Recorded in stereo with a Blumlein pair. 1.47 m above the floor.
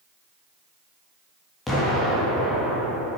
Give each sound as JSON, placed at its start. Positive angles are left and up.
{"t": 1.7, "sound": "an explosion", "azimuth_deg": 10, "distance_m": 3.0}